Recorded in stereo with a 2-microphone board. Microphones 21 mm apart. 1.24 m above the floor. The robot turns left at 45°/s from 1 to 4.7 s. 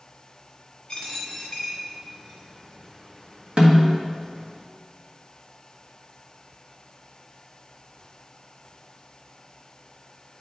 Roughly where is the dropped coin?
Left.